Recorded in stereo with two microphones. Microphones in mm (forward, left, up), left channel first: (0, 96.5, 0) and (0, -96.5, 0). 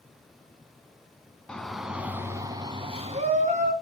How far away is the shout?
About 1.4 m.